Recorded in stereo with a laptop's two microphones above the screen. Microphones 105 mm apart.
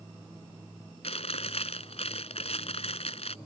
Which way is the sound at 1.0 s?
75° left (ahead or behind).